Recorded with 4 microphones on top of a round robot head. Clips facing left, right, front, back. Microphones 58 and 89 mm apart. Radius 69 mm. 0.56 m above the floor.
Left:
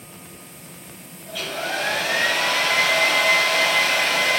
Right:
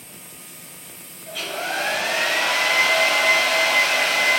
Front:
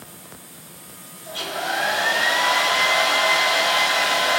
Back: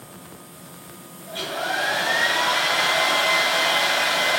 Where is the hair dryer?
5° right, 2 m.